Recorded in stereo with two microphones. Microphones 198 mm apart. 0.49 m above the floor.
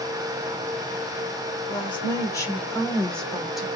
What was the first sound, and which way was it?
A woman speaking, 25° left (ahead or behind).